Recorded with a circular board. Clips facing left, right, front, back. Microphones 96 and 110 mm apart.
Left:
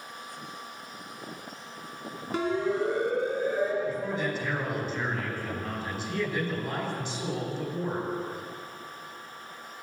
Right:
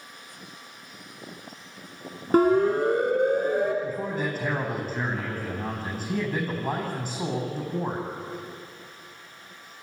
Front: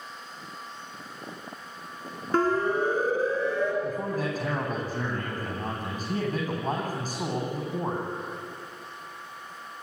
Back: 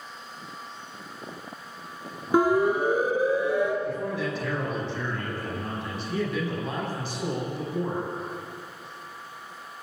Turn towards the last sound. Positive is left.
turn(degrees=-45)